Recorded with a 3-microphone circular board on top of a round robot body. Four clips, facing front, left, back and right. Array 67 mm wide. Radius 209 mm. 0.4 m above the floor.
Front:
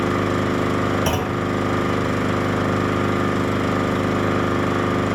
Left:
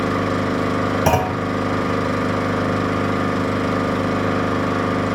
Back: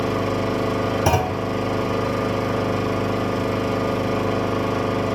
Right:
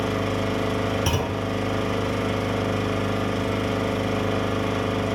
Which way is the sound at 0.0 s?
50° left.